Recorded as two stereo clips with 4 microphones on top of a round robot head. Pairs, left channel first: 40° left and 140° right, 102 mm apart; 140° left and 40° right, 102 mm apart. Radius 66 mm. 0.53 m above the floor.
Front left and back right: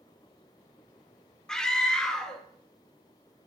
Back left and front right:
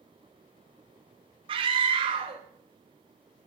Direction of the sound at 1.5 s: 40° right.